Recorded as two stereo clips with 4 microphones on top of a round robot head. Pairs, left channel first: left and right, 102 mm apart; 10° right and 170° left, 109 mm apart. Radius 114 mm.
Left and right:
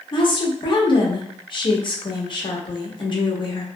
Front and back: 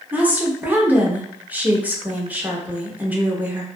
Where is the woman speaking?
100° left, 1.1 m.